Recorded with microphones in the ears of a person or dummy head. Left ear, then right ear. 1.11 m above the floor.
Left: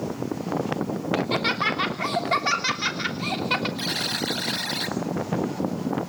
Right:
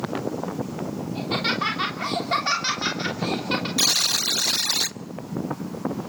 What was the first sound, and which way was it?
Laughter, 20° left (ahead or behind).